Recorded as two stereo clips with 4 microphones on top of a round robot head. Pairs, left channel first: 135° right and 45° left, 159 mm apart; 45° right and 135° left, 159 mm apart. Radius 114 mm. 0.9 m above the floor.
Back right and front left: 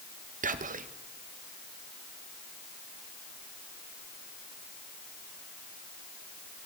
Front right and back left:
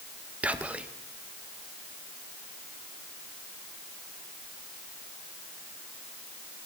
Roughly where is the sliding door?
No sliding door in this recording.